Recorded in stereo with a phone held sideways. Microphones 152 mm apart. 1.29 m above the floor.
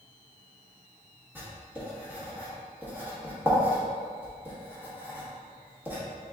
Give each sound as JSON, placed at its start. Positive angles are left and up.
{"t": 1.4, "sound": "writing", "side_deg": -10, "distance_m": 1.5}